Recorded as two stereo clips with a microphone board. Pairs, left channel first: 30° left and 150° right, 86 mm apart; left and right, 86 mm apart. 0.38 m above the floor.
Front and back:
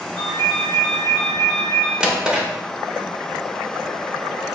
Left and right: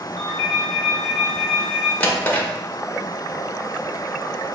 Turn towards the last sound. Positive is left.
turn(degrees=140)